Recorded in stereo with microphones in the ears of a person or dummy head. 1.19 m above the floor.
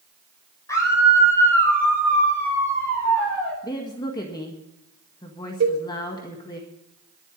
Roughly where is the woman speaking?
Left.